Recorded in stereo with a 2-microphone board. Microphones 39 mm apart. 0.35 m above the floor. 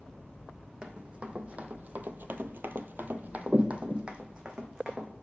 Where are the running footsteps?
25° right (ahead or behind), 1.2 m; by 5.1 s 15° right (ahead or behind), 1.6 m.